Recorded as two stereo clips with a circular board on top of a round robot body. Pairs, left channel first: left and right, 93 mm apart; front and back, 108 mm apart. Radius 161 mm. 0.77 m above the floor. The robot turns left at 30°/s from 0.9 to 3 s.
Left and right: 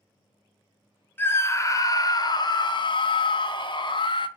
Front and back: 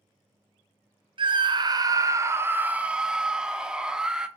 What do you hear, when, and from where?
1.2 s a scream: 155° left, 0.6 m; by 4.3 s 100° left, 0.6 m